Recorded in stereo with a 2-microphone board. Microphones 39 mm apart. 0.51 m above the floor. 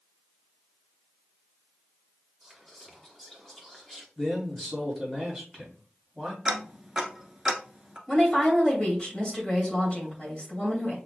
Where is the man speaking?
5° left (ahead or behind), 2.5 m.